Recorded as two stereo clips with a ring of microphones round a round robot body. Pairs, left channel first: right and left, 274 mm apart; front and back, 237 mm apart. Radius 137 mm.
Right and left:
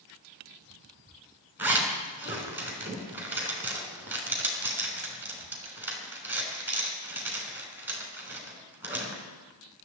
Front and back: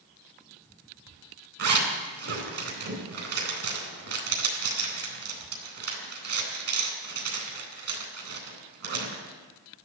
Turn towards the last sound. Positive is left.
turn(degrees=170)